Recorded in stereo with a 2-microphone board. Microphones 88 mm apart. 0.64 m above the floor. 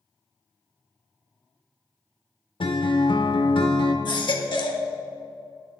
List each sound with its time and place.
2.6 s a guitar: 70° left (ahead or behind), 0.8 m
4.0 s a baby crying: 60° left (ahead or behind), 0.9 m